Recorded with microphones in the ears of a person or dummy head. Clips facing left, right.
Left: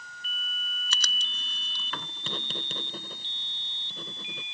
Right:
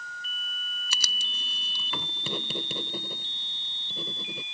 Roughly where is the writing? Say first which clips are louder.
Even; centre.